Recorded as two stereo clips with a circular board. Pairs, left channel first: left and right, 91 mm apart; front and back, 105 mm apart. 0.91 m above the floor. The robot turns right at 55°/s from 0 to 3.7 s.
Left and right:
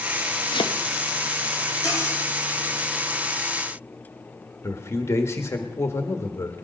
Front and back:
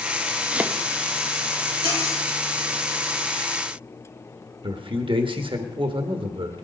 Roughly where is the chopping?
Left.